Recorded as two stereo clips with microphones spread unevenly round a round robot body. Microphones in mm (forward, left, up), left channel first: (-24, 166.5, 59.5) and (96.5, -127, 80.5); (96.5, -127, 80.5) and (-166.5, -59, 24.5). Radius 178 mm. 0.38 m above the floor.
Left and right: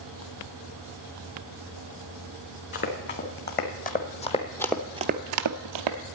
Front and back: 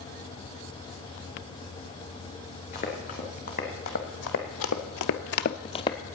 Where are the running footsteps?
55° left, 2.5 m; by 6.0 s 85° right, 0.9 m.